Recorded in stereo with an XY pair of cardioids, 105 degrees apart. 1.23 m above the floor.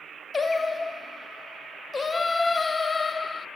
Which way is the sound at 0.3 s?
25° left.